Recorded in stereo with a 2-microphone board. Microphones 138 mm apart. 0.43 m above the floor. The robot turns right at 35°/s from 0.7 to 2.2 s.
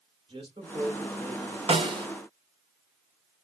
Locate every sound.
0.3 s a man speaking: 120° right, 2 m; by 1.6 s 90° right, 2 m
1.7 s a snare drum: 45° right (ahead or behind), 0.7 m; by 2.1 s 30° right (ahead or behind), 0.7 m